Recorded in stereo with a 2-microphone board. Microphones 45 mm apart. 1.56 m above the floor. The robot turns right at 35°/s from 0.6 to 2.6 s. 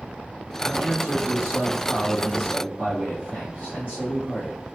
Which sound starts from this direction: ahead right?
A man speaking, at 0.6 s.